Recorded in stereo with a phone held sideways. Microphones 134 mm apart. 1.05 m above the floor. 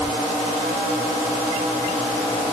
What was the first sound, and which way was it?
Only background noise.